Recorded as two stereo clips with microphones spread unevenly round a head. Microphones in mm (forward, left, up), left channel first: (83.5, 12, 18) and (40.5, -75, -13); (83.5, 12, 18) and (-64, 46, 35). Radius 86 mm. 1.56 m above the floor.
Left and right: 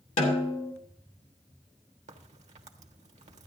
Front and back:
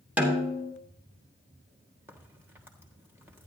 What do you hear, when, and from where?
0.2 s a snare drum: 85° left, 2.5 m
2.1 s a crack: 120° right, 1.4 m